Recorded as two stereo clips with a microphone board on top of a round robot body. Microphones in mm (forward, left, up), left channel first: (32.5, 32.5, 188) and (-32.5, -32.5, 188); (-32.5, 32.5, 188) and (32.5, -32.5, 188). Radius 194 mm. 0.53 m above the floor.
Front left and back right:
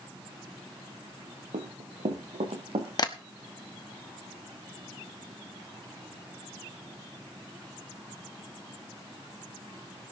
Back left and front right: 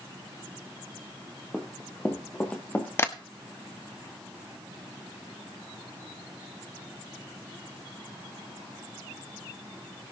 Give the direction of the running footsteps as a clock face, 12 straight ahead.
5 o'clock.